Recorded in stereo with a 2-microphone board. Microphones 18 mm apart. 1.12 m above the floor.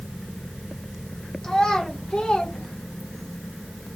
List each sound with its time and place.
1.4 s a child speaking: 35° left (ahead or behind), 1.1 m; by 3.4 s 55° left (ahead or behind), 1.3 m